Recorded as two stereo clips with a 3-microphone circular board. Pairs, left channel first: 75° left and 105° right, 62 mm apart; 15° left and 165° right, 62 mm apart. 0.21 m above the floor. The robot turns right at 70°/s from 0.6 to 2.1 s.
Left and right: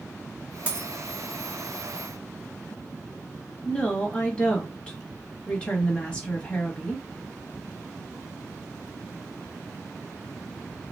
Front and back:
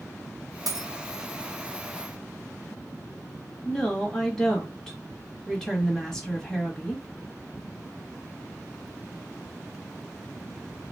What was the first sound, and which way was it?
A dropped coin, 170° right.